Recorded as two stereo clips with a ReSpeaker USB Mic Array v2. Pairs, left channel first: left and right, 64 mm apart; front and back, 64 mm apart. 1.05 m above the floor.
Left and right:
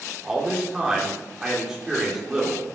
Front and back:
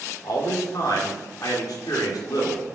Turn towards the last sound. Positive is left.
turn(degrees=-10)